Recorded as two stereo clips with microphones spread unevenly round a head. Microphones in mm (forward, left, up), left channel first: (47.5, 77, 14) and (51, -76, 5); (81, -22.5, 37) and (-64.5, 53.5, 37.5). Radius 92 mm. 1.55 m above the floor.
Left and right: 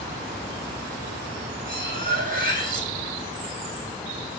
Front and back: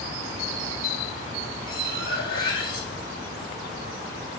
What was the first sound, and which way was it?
Cutlery clinking, 65° right.